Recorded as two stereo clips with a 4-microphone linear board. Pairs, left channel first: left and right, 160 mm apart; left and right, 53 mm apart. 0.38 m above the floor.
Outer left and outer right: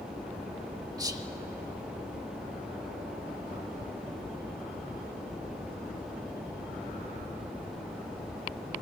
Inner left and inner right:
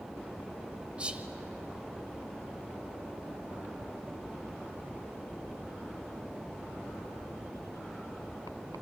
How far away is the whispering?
About 1.3 m.